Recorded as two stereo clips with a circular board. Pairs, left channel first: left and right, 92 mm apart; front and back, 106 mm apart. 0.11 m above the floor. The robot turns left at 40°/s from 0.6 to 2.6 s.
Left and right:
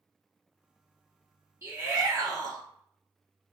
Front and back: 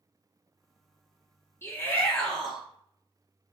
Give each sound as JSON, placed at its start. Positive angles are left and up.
{"t": 1.6, "sound": "a shout", "azimuth_deg": -50, "distance_m": 1.5}